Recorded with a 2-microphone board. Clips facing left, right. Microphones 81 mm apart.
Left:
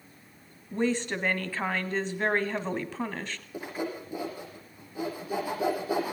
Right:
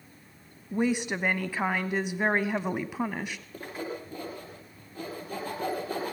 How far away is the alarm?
No alarm in this recording.